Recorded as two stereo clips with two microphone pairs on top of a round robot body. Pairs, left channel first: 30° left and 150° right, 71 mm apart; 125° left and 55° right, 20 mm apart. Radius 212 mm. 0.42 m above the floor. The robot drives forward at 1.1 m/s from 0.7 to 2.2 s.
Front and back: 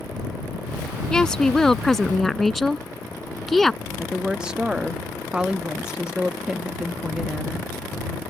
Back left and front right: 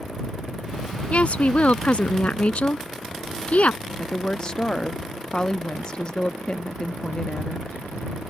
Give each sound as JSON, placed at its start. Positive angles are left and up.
{"t": 1.1, "sound": "a woman speaking", "azimuth_deg": 115}
{"t": 4.0, "sound": "a woman speaking", "azimuth_deg": 130}